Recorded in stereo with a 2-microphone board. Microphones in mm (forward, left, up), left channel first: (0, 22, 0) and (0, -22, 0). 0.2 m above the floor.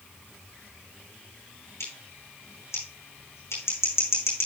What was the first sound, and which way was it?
Scissors, 85° left.